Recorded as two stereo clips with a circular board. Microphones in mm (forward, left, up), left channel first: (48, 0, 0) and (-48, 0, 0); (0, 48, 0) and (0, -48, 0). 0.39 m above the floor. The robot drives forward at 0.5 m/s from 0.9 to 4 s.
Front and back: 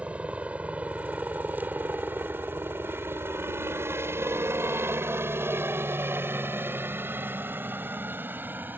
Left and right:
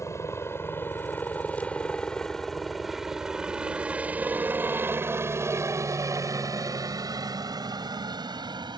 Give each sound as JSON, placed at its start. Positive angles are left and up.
{"t": 0.0, "sound": "a helicopter", "azimuth_deg": 115}